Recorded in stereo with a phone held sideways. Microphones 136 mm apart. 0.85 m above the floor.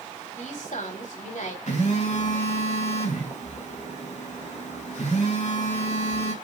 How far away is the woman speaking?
About 5 m.